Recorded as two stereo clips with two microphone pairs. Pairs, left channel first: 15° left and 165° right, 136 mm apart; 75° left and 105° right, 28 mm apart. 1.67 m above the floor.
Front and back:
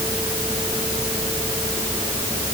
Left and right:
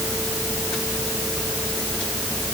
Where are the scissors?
No scissors in this recording.